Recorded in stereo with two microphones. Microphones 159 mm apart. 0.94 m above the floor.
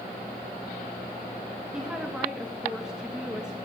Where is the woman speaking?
5° right (ahead or behind), 1.2 m.